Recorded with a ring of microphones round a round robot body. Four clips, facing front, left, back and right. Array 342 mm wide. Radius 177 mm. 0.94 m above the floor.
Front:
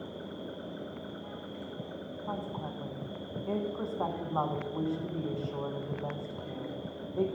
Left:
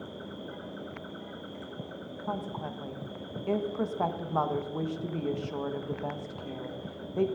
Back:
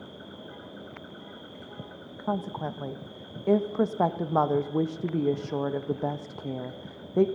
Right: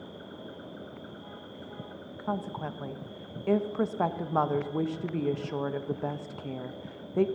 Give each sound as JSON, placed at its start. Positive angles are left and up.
{"t": 0.0, "sound": "an insect", "azimuth_deg": 105, "distance_m": 1.4}
{"t": 2.2, "sound": "a woman speaking", "azimuth_deg": -165, "distance_m": 0.7}